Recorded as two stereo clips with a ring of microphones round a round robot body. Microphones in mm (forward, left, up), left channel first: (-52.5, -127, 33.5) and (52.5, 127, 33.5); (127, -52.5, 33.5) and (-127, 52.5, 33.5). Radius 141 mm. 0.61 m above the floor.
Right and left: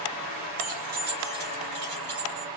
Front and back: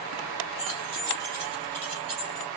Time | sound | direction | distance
0.6 | keys jangling | 130° left | 3.5 m